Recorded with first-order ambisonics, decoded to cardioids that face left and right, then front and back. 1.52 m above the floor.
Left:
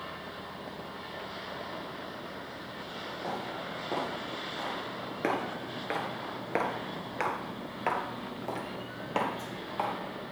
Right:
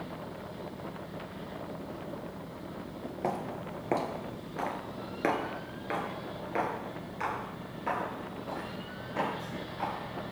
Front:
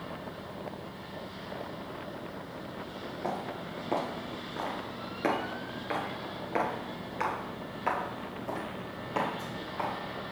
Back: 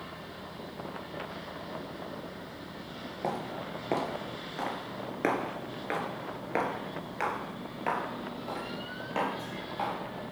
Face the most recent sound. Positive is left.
turn(degrees=85)